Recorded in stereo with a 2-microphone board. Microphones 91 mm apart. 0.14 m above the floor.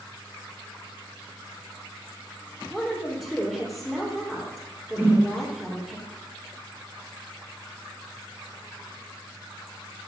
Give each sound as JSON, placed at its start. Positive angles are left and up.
{"t": 2.7, "sound": "a woman speaking", "side_deg": 0, "distance_m": 3.0}
{"t": 5.0, "sound": "a whoosh", "side_deg": -25, "distance_m": 1.8}